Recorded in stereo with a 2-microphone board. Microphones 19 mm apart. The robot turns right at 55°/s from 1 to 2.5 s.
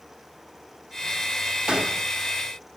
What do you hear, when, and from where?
1.7 s a gunshot: 55° right (ahead or behind), 0.8 m; by 2.1 s 40° right (ahead or behind), 0.8 m